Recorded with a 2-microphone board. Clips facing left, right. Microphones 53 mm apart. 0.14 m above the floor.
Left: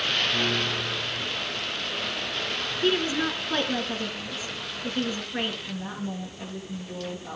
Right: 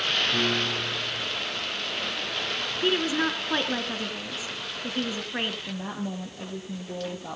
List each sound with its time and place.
0.3 s a piano: 70° right (ahead or behind), 9.5 m
2.8 s a woman speaking: 15° right (ahead or behind), 2.0 m
5.7 s a woman speaking: 70° right (ahead or behind), 3.5 m